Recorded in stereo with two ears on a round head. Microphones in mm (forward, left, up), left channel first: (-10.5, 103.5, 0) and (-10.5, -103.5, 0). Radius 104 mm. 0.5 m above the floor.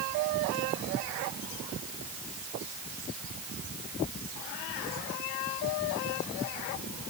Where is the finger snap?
I don't hear a finger snap.